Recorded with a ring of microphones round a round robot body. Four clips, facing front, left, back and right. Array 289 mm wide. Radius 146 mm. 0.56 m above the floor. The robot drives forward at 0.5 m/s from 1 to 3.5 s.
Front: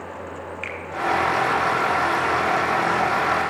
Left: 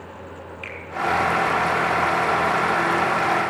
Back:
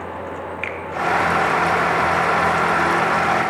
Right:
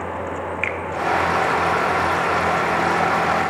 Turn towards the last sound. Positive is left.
turn(degrees=-155)